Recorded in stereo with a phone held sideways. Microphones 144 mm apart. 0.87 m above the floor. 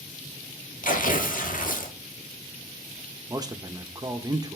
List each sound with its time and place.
0.8 s tearing paper: 70° left (ahead or behind), 1.4 m
3.3 s a man speaking: 25° right (ahead or behind), 0.9 m